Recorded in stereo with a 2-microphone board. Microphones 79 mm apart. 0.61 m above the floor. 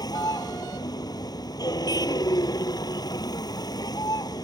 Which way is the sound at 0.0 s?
60° left (ahead or behind).